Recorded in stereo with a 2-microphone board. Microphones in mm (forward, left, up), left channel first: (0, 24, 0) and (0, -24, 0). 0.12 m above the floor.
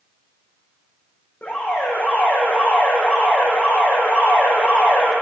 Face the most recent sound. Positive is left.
turn(degrees=40)  # may be behind; listen again after turning